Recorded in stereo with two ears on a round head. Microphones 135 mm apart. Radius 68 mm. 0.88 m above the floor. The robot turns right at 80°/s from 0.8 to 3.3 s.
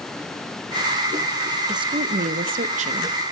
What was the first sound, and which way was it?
A woman speaking, 150° right.